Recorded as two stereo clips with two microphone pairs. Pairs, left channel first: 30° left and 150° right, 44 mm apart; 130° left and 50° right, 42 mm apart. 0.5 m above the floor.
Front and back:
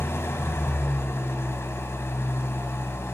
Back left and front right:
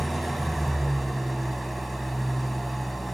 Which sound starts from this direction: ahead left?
An engine running, at 0.0 s.